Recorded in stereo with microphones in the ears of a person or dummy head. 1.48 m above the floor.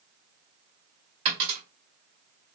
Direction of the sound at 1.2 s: 40° right (ahead or behind).